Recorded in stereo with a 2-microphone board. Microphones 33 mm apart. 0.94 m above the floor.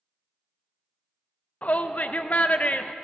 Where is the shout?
45° left (ahead or behind), 0.5 m.